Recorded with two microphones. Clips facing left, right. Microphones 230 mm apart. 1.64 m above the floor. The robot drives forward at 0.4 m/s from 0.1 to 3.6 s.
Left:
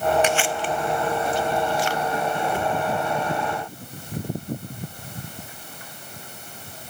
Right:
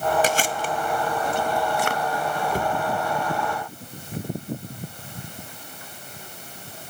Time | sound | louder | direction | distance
0.2 | chewing | left 1 dB | 40° right (ahead or behind) | 0.9 m
2.5 | a cupboard door | even | 40° right (ahead or behind) | 1.1 m